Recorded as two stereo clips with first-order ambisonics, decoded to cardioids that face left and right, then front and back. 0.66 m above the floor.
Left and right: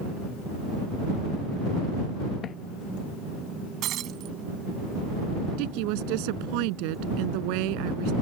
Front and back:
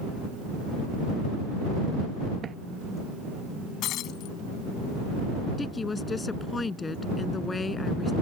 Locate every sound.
2.4 s footsteps: 130° left
3.8 s breaking glass: 45° right
5.6 s a woman speaking: 75° right